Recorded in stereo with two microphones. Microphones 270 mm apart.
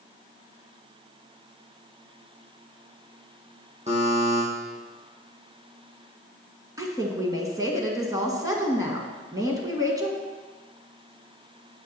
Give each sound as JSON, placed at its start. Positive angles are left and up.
{"t": 3.9, "sound": "a buzzer", "side_deg": -25, "distance_m": 3.5}
{"t": 6.8, "sound": "a woman speaking", "side_deg": -15, "distance_m": 1.5}